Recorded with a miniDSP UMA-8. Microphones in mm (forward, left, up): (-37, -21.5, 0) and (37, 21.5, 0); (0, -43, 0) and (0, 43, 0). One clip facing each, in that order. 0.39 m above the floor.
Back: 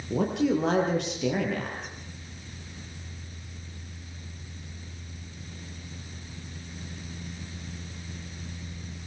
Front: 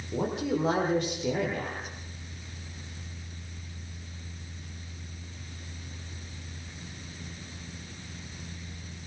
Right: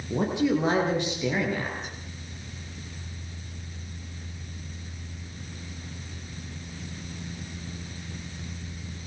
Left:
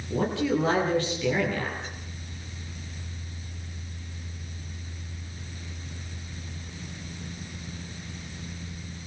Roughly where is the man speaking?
Behind.